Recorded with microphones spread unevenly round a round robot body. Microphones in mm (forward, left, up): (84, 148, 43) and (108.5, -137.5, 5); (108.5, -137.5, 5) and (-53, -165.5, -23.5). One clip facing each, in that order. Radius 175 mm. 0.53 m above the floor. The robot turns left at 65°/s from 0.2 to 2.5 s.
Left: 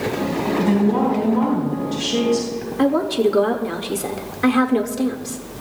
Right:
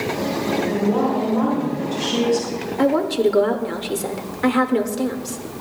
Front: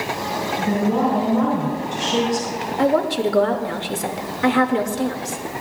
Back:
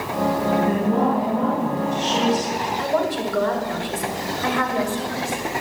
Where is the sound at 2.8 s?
10° left, 1.6 m.